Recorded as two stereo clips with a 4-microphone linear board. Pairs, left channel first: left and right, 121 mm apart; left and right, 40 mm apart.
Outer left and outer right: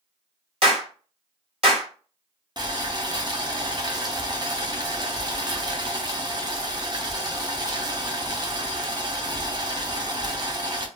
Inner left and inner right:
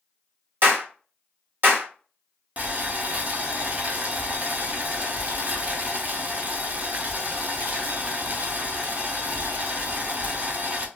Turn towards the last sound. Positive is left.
turn(degrees=-35)  # may be behind; listen again after turning